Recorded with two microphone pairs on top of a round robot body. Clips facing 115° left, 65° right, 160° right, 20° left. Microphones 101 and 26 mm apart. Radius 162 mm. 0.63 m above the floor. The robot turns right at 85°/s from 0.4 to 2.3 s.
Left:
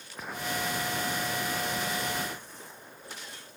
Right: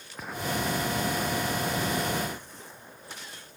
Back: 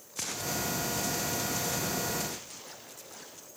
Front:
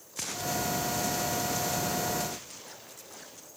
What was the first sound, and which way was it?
Only background noise.